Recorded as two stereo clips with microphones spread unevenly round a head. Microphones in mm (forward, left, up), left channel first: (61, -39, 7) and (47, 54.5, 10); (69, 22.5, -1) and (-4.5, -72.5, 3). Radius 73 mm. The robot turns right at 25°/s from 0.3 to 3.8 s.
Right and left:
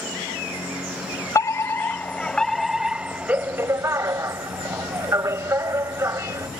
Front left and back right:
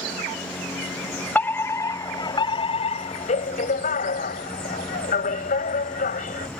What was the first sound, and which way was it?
A fire alarm, 25° right.